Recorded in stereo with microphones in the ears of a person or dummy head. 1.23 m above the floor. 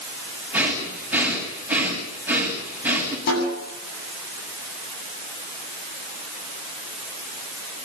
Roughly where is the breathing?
Centre.